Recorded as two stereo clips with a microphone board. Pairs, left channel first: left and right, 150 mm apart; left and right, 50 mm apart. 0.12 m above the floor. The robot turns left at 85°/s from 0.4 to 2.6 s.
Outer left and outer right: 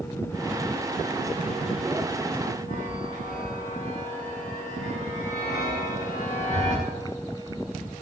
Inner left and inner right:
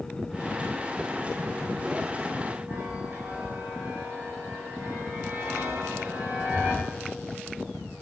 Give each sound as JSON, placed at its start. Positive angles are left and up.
{"t": 2.7, "sound": "a chime", "side_deg": -50, "distance_m": 8.0}